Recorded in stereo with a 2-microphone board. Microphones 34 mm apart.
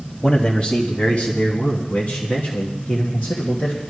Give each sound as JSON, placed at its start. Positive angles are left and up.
{"t": 0.2, "sound": "a man speaking", "side_deg": 25, "distance_m": 1.8}